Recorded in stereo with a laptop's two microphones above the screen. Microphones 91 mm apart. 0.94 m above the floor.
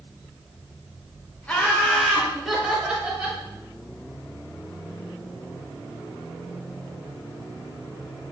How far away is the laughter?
About 0.8 m.